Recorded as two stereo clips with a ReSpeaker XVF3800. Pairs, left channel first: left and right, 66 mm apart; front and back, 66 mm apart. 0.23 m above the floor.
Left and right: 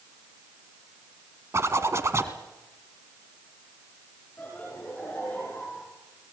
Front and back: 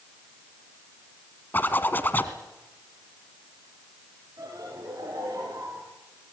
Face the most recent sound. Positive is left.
turn(degrees=150)